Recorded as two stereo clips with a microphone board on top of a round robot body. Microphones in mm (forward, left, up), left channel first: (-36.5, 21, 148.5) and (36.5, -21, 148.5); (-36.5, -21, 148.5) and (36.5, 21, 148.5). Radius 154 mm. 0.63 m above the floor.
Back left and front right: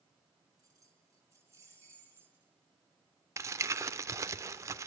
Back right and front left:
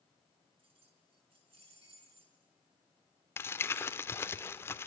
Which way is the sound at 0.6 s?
25° left.